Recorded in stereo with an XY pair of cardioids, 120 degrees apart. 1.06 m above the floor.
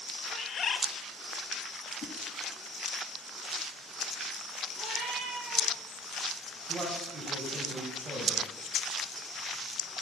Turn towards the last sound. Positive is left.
turn(degrees=-40)